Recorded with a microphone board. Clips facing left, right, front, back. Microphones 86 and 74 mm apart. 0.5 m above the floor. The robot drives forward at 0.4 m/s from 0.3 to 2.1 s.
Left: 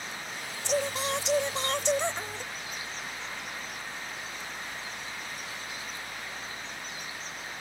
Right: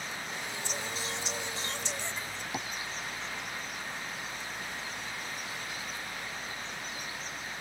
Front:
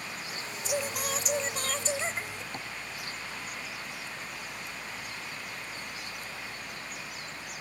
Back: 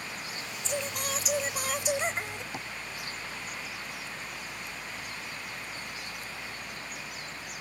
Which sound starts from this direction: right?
Tapping, at 2.5 s.